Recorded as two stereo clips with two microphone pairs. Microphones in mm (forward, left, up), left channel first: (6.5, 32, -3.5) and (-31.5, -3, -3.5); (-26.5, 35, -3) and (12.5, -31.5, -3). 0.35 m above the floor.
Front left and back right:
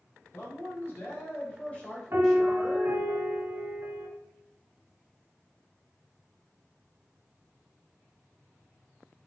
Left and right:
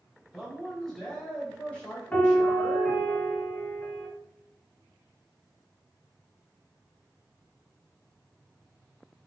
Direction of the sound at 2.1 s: 175° right.